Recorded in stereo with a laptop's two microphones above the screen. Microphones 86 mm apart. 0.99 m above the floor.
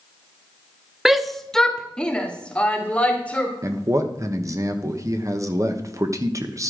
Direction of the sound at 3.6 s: 35° right (ahead or behind).